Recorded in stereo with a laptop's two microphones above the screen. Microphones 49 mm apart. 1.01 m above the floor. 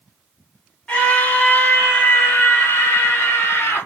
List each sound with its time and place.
0.9 s a scream: 20° left (ahead or behind), 1.5 m; by 3.9 s 55° left (ahead or behind), 1.3 m